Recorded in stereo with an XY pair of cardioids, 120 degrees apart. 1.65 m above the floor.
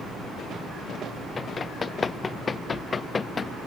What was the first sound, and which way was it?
Running footsteps, 30° left.